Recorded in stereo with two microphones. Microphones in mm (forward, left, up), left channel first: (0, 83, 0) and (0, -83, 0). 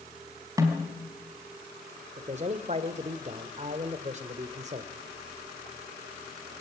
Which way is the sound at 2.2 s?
40° right (ahead or behind).